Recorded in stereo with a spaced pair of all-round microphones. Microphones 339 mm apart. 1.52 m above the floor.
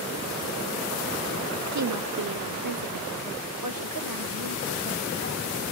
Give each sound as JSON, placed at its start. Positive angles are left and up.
{"t": 1.7, "sound": "a woman speaking", "side_deg": -50, "distance_m": 0.6}